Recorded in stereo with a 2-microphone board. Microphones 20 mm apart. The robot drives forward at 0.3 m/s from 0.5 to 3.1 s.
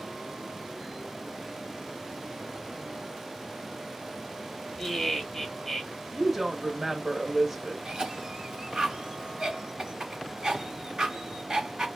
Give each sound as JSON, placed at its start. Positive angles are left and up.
{"t": 4.8, "sound": "laughter", "side_deg": 15, "distance_m": 0.8}
{"t": 6.1, "sound": "a woman speaking", "side_deg": -15, "distance_m": 0.7}
{"t": 7.8, "sound": "a cough", "side_deg": -45, "distance_m": 1.1}